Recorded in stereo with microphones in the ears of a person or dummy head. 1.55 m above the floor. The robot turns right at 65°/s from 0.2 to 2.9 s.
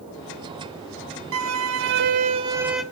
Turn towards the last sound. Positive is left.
turn(degrees=5)